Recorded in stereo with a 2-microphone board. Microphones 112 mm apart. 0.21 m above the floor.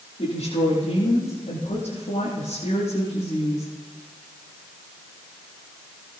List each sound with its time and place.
0.2 s a woman speaking: 80° left, 8.5 m